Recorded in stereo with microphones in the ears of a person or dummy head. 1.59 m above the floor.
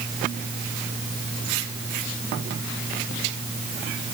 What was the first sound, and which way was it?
Only background noise.